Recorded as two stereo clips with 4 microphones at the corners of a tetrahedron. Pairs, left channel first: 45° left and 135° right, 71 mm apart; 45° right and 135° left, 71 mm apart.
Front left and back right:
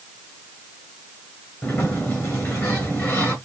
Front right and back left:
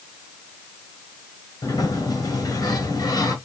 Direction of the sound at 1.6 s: 15° right.